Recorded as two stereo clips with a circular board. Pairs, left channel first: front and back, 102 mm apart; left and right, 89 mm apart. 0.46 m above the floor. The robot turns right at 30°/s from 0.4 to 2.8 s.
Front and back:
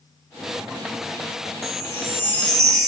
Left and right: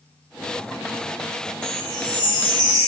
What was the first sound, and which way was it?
A chime, 55° left.